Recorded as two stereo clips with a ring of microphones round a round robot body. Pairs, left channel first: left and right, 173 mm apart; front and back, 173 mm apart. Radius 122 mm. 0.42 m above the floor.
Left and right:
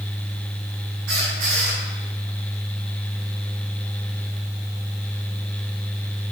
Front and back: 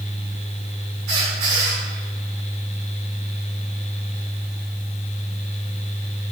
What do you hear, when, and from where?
1.1 s a squeak: 130° right, 1.8 m